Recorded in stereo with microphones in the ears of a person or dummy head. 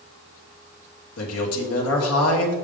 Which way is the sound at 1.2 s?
75° left (ahead or behind).